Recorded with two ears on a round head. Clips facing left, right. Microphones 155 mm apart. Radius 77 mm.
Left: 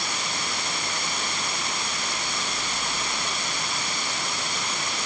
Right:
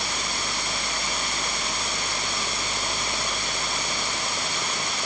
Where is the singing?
I don't hear singing.